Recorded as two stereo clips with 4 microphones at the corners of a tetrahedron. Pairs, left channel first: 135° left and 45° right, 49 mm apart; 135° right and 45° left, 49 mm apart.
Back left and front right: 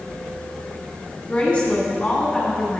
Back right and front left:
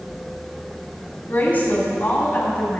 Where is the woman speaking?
175° right, 1.7 m.